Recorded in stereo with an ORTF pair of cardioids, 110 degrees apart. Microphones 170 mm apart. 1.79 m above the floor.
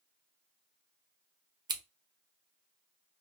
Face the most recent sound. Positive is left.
turn(degrees=-25)